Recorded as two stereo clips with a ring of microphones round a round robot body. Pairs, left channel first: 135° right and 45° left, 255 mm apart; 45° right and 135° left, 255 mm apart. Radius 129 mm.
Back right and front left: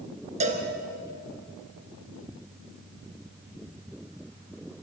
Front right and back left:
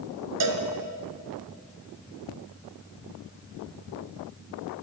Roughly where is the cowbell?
Left.